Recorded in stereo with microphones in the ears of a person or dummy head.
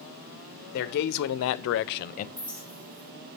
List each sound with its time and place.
0.7 s a man speaking: 55° left (ahead or behind), 0.8 m; by 2.3 s 40° left (ahead or behind), 0.6 m
2.4 s a clink: 10° right (ahead or behind), 0.6 m